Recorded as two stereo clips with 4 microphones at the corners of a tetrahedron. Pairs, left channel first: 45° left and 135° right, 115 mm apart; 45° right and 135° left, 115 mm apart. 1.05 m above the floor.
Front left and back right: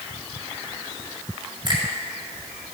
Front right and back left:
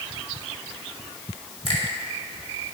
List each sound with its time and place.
1.6 s a finger snap: 85° right, 2 m